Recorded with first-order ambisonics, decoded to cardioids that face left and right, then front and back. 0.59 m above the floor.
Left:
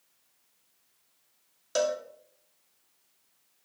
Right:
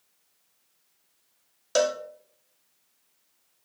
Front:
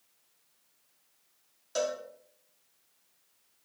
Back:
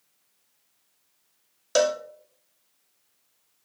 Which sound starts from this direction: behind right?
A cowbell, at 1.8 s.